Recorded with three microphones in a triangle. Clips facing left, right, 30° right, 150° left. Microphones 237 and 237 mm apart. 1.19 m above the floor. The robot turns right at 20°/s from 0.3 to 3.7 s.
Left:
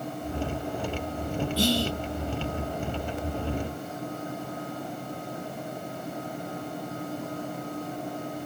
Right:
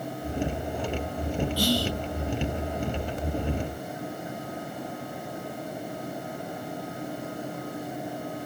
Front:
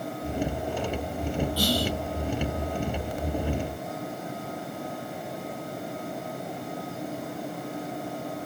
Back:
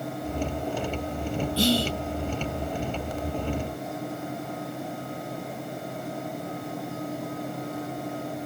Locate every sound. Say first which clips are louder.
1.6 s whispering: left 2 dB, back 7 dB; 120° left, 0.6 m; by 1.9 s 130° left, 0.6 m